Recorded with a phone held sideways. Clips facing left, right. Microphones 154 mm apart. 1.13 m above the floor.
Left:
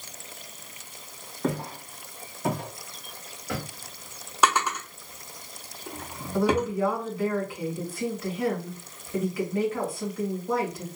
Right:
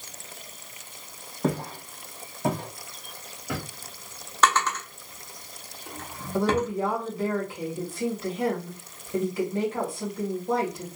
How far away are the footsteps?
About 2.0 m.